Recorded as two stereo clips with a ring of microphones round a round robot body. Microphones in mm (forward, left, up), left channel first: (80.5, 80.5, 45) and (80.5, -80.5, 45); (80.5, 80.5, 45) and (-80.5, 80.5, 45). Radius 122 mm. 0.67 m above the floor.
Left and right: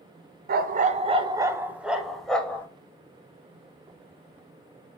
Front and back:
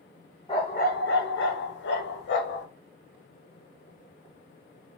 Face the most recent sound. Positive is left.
turn(degrees=10)